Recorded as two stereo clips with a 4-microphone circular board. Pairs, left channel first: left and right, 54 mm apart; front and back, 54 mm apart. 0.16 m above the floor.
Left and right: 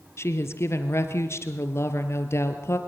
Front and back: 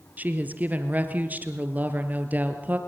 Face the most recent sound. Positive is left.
turn(degrees=120)